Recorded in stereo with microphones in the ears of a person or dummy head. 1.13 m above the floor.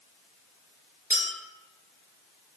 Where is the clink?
5° left (ahead or behind), 1.6 m.